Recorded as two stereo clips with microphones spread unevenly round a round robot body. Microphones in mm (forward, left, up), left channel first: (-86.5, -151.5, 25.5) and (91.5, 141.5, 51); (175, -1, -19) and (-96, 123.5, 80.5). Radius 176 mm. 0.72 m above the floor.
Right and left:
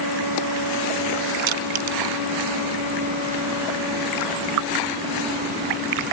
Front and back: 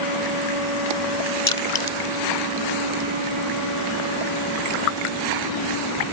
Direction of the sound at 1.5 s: 55° left.